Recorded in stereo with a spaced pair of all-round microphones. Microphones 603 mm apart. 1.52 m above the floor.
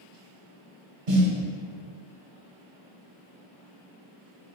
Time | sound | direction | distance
1.1 | a snare drum | 90° right | 0.8 m